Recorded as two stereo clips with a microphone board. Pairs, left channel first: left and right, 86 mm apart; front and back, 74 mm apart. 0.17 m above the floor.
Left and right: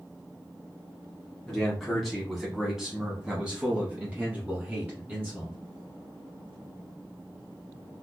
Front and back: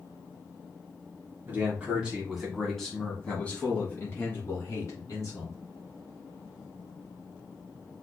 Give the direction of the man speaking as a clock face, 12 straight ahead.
6 o'clock.